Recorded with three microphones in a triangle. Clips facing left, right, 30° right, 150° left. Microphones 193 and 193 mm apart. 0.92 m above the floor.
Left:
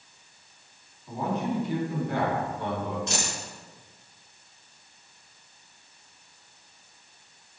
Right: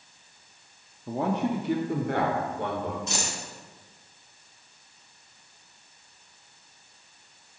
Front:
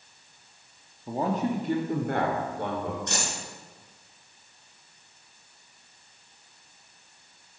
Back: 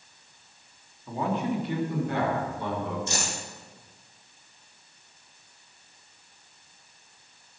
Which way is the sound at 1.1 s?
85° right.